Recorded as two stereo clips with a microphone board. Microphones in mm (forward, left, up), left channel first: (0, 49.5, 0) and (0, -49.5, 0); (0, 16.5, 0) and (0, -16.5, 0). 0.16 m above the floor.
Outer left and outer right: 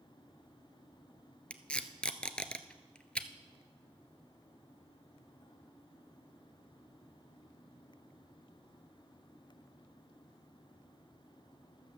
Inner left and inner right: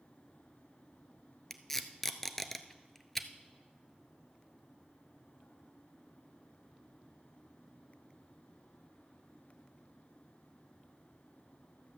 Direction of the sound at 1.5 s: 10° left (ahead or behind).